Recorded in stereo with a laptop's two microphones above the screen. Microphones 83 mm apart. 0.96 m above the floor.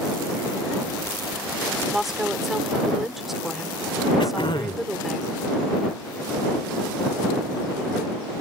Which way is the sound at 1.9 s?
5° right (ahead or behind).